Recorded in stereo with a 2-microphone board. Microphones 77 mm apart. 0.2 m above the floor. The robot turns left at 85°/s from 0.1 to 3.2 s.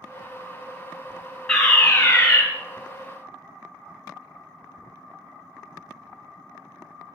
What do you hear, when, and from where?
1.5 s a fire alarm: 5° left (ahead or behind), 2 m; by 2.4 s 25° left (ahead or behind), 2 m